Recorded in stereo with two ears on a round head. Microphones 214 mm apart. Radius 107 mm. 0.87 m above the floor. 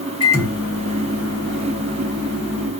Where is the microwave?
15° left (ahead or behind), 1.3 m.